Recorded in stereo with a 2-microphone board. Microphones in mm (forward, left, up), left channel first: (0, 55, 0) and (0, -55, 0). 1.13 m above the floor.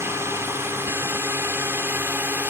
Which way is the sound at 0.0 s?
25° right (ahead or behind).